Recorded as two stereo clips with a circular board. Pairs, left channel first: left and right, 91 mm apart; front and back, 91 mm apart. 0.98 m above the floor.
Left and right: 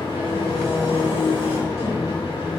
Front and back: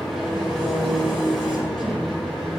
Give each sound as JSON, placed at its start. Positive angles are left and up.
{"t": 0.0, "sound": "an engine running", "azimuth_deg": 85, "distance_m": 3.5}